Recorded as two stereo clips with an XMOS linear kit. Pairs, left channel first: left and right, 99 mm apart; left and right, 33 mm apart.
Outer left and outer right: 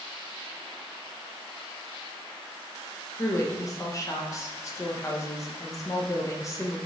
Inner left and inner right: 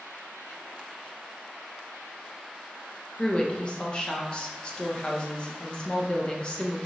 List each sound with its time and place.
3.2 s a woman speaking: 35° left (ahead or behind), 0.5 m